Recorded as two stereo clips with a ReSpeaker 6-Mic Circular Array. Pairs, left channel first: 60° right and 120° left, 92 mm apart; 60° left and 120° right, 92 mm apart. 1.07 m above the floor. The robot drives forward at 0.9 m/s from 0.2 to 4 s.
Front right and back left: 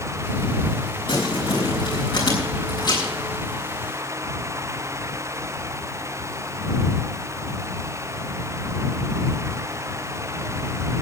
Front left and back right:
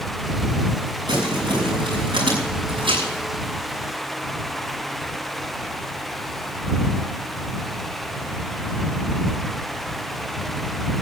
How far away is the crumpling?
About 6 m.